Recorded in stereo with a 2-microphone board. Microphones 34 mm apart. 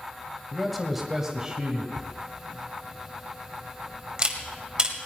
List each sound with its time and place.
0.5 s a man speaking: centre (ahead or behind), 1.6 m; by 1.9 s 30° right (ahead or behind), 1.7 m
2.0 s a camera shutter: 25° right (ahead or behind), 1.6 m